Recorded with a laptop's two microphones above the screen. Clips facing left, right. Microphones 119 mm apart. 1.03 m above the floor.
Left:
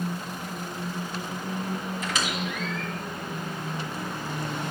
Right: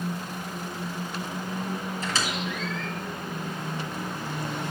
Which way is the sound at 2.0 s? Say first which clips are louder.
Even; 35° right (ahead or behind).